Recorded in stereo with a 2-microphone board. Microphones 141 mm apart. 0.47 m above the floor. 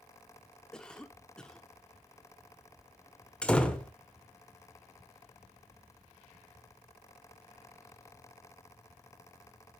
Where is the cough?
5° left (ahead or behind), 1.0 m.